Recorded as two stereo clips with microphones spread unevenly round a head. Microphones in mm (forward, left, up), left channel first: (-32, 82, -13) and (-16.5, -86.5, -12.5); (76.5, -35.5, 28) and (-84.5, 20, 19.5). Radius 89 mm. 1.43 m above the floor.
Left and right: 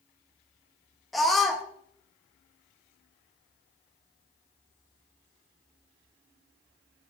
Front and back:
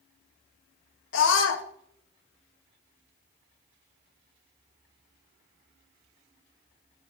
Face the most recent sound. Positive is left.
turn(degrees=5)